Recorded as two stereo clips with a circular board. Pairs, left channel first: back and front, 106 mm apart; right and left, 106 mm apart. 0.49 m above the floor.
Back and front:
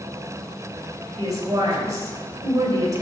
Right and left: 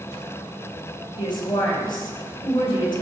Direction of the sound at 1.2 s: 55° right.